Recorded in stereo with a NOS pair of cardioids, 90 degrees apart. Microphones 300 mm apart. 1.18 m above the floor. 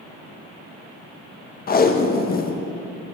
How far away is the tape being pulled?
About 0.6 m.